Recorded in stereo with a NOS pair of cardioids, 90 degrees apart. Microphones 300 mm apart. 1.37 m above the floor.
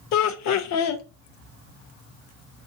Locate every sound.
0.1 s laughter: 65° left, 0.6 m